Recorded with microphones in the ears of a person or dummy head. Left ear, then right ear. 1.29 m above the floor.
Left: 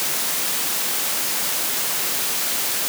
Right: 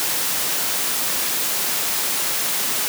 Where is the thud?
I don't hear a thud.